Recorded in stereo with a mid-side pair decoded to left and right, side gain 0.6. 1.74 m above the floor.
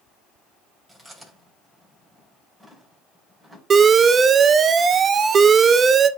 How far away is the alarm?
About 0.6 m.